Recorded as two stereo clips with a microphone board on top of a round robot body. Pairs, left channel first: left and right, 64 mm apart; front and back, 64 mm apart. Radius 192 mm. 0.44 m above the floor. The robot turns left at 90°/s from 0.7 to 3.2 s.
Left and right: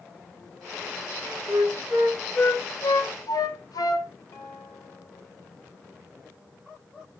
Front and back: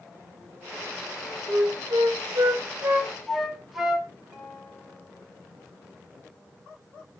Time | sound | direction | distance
1.5 | a flute | 115° right | 1.6 m
4.3 | a guitar | 125° left | 4 m